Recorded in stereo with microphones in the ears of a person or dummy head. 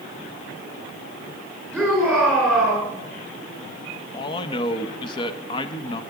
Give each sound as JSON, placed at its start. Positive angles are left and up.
{"t": 1.7, "sound": "a shout", "side_deg": 5, "distance_m": 4.0}
{"t": 4.1, "sound": "a man speaking", "side_deg": 30, "distance_m": 1.1}